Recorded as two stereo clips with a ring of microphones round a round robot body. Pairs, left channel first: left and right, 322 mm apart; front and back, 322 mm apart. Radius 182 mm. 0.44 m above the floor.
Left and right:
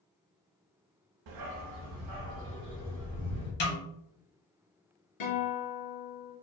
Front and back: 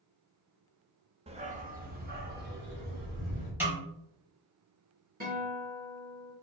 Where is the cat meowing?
I don't hear a cat meowing.